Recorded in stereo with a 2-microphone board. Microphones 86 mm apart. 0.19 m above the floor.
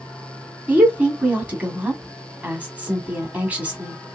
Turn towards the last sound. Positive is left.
turn(degrees=-15)  # may be behind; listen again after turning